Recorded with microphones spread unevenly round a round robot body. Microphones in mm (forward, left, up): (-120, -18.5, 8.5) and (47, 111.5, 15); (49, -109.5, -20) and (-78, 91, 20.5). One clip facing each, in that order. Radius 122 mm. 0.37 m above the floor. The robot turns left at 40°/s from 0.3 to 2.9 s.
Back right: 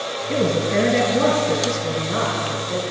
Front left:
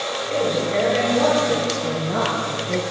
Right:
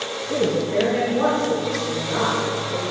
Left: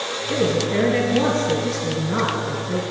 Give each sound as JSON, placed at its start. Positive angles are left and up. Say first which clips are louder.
{"t": 0.3, "sound": "a woman speaking", "louder": "back right 2 dB, even", "azimuth_deg": -155, "distance_m": 2.5}